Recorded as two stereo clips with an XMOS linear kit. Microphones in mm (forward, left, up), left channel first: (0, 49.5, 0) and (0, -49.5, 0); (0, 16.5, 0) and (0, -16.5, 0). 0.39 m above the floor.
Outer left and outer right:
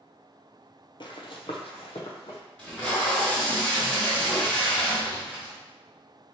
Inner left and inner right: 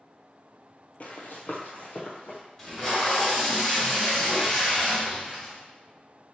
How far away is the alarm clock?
No alarm clock in this recording.